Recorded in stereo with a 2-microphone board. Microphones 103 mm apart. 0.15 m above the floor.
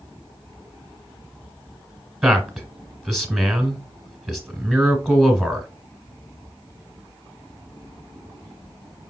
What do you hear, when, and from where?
2.2 s a man speaking: 5° right (ahead or behind), 1.3 m